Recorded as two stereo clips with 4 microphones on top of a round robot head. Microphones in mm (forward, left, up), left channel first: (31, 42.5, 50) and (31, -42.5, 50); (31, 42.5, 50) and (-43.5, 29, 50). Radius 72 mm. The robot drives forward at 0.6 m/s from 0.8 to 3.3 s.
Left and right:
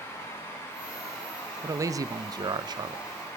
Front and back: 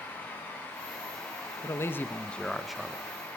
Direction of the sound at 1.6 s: 40° right.